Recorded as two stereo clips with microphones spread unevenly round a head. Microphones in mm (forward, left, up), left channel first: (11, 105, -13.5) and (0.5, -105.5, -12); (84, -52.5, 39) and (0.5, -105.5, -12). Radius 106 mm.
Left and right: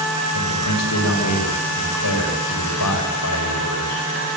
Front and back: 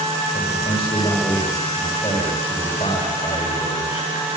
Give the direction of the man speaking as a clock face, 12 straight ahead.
9 o'clock.